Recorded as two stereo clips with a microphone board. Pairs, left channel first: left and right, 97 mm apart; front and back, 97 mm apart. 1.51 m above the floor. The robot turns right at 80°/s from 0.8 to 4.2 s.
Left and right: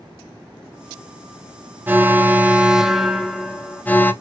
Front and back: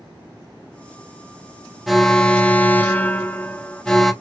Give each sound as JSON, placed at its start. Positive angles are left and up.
{"t": 1.9, "sound": "an alarm", "azimuth_deg": -90, "distance_m": 0.5}